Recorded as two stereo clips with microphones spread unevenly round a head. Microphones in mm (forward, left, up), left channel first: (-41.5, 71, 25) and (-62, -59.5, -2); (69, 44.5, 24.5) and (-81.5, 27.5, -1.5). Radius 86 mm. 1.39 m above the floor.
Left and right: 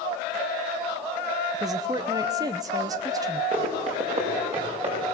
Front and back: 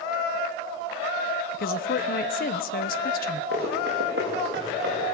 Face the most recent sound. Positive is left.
turn(degrees=-140)